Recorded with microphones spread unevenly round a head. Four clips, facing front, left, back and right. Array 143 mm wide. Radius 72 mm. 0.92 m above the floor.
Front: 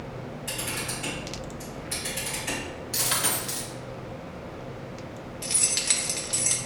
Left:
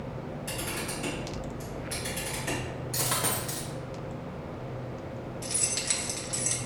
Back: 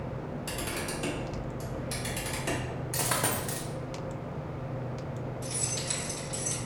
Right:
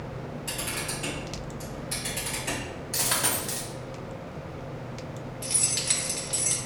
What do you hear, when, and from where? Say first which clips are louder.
0.5 s a camera shutter: left 1 dB, front 1 dB; 165° left, 1.4 m
2.9 s a dropped coin: right 1 dB, back 1 dB; 175° left, 0.7 m
5.4 s keys jangling: right 1 dB, even; 5° right, 0.8 m